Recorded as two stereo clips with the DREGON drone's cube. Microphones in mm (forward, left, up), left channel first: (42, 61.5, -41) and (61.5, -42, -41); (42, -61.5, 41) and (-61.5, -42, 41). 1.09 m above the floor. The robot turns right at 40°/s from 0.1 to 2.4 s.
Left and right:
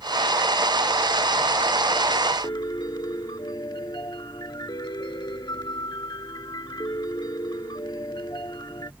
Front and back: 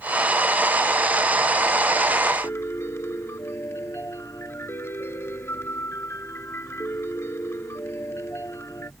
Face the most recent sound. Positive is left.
turn(degrees=50)